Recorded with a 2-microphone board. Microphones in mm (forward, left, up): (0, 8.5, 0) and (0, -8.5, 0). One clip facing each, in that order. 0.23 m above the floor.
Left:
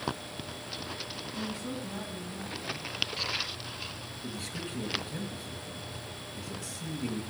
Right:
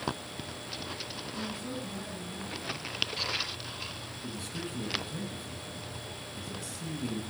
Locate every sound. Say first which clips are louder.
1.4 s a woman speaking: left 1 dB; 25° left (ahead or behind), 1.5 m
4.2 s a man speaking: left 1 dB; 5° left (ahead or behind), 3 m